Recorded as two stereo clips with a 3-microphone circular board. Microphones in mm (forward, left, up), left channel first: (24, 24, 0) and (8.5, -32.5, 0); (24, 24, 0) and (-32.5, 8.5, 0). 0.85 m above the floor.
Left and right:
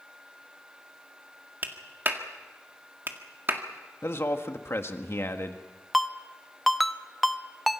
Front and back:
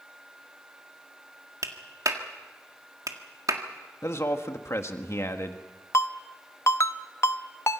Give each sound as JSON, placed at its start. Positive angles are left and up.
{"t": 1.6, "sound": "a clap", "azimuth_deg": -155, "distance_m": 1.8}
{"t": 4.0, "sound": "a man speaking", "azimuth_deg": 40, "distance_m": 1.6}
{"t": 5.9, "sound": "a ringtone", "azimuth_deg": -15, "distance_m": 0.7}